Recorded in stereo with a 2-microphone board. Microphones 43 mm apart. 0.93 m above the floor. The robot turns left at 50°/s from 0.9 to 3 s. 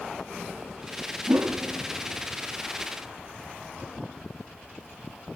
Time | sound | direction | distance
1.3 | a whoosh | 70° right (ahead or behind) | 1.2 m